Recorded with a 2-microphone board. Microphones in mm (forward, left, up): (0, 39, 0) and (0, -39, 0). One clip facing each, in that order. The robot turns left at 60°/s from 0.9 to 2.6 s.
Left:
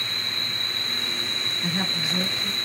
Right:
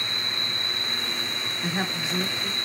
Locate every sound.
0.0 s an insect: 140° left, 1.8 m; by 2.6 s 35° left, 1.8 m
1.6 s a woman speaking: 95° right, 1.5 m; by 2.5 s 150° right, 1.5 m